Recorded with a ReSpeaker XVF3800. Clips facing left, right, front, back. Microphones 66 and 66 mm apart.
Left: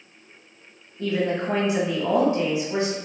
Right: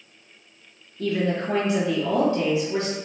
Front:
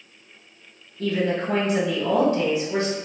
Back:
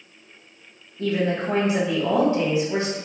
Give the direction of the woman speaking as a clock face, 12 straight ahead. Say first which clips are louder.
Even, even; 7 o'clock.